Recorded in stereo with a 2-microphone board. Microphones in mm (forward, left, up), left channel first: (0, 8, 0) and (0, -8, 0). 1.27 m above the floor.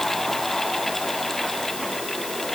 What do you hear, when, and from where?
Only background noise.